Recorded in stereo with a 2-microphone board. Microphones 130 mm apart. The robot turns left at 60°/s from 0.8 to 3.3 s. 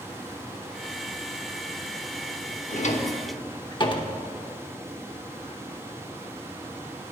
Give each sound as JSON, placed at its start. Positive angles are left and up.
{"t": 2.7, "sound": "a drawer", "side_deg": 75, "distance_m": 0.7}